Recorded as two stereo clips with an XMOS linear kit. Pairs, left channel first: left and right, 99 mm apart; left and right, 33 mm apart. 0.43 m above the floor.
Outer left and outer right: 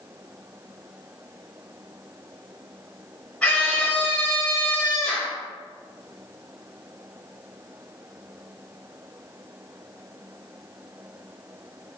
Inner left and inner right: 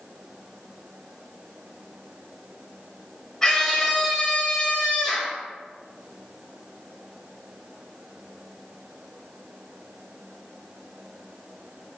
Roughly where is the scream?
Centre.